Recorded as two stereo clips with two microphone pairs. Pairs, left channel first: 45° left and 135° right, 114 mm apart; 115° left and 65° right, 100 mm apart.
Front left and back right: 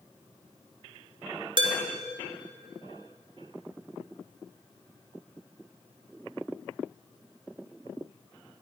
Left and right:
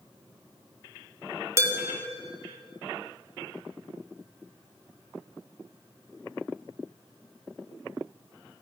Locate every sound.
1.6 s dishes clattering: 115° right, 1.3 m